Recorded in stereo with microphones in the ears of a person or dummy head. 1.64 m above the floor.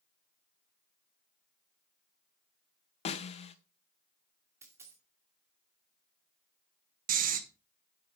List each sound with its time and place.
3.0 s a snare drum: 35° left (ahead or behind), 0.8 m
4.6 s a dropped coin: 15° right (ahead or behind), 2 m
7.1 s snoring: 45° right (ahead or behind), 1.1 m